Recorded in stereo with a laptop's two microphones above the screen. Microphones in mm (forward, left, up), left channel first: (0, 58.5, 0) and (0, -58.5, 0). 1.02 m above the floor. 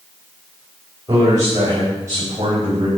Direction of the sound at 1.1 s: 30° right (ahead or behind).